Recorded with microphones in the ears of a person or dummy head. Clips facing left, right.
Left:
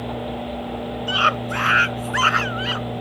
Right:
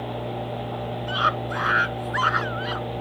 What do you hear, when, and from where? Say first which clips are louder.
1.1 s a scream: left 3 dB; 40° left (ahead or behind)